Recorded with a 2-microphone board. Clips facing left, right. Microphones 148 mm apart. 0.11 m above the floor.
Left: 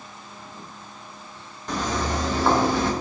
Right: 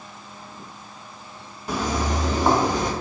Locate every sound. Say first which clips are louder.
1.7 s footsteps: right 1 dB; 10° right (ahead or behind), 1.9 m; by 2.9 s 20° right (ahead or behind), 2.5 m